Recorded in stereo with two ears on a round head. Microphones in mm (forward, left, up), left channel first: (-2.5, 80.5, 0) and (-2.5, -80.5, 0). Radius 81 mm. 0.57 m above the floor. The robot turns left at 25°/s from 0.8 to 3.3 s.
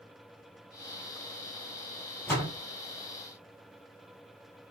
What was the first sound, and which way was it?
A door slam, 10° left (ahead or behind).